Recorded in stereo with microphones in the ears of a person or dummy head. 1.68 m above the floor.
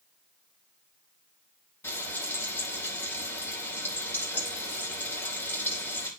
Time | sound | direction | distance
1.8 | frying | 15° left (ahead or behind) | 3 m